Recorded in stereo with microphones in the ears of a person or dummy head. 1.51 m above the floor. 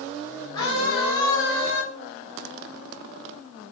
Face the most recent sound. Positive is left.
turn(degrees=35)  # may be behind; listen again after turning